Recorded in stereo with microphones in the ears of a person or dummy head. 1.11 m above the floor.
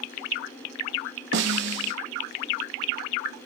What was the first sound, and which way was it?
A snare drum, 55° right (ahead or behind).